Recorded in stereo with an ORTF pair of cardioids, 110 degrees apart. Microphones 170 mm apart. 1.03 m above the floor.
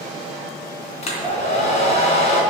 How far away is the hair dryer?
About 3 m.